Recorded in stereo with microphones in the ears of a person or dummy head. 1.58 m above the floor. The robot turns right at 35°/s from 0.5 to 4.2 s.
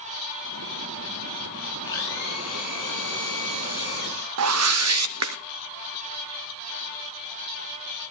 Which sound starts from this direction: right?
A whoosh, at 4.4 s.